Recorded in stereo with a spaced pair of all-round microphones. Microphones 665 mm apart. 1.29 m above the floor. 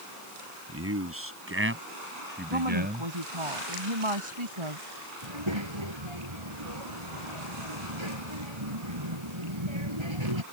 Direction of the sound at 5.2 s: 40° right (ahead or behind).